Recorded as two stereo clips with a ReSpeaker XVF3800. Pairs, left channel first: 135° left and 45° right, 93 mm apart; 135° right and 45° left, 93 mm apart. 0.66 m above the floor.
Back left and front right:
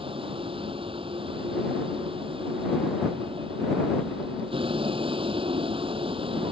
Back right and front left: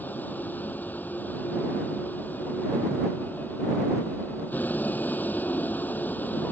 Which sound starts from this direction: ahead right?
A vehicle, at 0.0 s.